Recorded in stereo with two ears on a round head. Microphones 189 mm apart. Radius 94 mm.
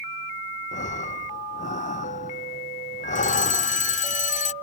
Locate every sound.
0.7 s breathing: 35° left (ahead or behind)
3.1 s a fire alarm: 35° left (ahead or behind)